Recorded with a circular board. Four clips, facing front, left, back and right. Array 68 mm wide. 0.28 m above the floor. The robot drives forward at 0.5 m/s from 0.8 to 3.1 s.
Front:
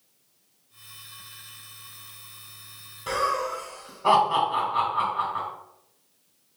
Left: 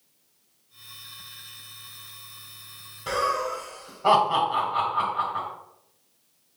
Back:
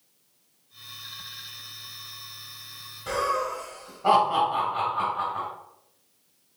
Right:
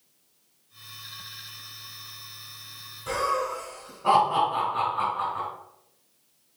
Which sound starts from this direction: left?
Laughter, at 3.1 s.